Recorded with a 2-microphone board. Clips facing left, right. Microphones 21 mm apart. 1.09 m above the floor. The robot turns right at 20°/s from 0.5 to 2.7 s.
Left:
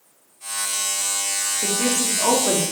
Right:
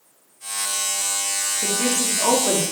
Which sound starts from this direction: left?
A woman speaking, at 1.6 s.